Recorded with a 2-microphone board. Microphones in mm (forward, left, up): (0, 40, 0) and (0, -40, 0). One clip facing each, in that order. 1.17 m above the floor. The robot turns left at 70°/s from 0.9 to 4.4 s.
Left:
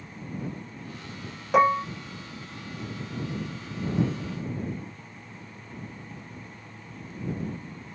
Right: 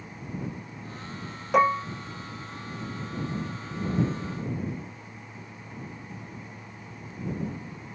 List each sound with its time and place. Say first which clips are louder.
1.5 s dishes clattering: left 1 dB; 5° left (ahead or behind); by 1.9 s 25° left (ahead or behind)